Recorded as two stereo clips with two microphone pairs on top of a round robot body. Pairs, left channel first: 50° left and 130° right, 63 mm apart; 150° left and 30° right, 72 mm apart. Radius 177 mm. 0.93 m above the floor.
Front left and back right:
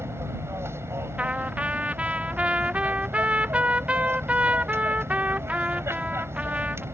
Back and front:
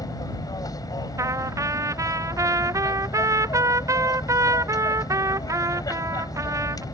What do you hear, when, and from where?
0.0 s an aircraft: 175° right
1.2 s a trumpet: 65° right